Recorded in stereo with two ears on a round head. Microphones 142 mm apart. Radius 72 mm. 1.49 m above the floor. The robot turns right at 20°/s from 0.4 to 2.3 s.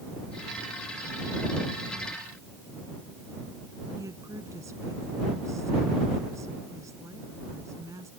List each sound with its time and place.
4.0 s a woman speaking: 20° right (ahead or behind)